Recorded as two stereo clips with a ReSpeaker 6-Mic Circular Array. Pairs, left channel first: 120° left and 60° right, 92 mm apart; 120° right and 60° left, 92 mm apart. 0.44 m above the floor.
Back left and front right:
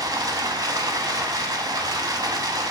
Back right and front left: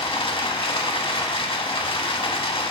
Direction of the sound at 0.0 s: 105° right.